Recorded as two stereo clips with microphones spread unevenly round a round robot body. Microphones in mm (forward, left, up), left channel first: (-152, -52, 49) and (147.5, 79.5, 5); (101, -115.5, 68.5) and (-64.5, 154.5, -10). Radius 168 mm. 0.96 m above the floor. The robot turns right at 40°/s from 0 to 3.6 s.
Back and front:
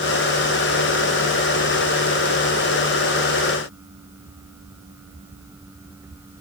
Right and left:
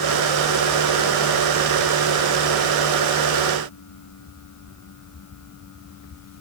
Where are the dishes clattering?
No dishes clattering in this recording.